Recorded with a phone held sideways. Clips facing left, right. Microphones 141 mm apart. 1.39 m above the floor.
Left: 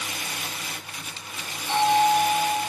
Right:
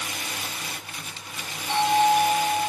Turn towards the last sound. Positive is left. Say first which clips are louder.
# even
turn(degrees=-5)  # may be behind; listen again after turning